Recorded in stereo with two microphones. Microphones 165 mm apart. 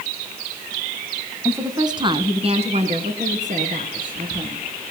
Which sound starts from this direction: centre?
A woman speaking, at 1.4 s.